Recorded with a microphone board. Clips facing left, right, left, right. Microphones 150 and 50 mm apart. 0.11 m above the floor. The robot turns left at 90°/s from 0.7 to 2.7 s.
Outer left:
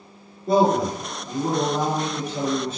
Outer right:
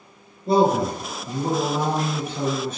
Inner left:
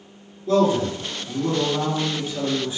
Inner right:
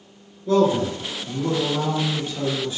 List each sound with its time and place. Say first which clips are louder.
0.5 s a man speaking: even, even; 110° right, 1.7 m; by 2.8 s 70° left, 1.7 m